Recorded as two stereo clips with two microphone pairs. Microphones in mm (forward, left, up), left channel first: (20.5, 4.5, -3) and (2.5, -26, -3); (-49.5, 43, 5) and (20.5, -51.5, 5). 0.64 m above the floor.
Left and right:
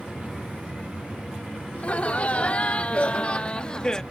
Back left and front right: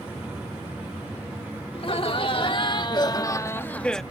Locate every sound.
1.7 s laughter: 100° left; by 4.0 s 50° left